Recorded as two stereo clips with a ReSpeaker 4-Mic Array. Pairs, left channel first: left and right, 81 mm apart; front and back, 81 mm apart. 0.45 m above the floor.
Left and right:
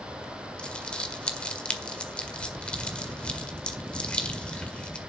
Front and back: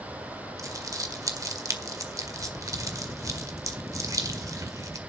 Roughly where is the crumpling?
Behind.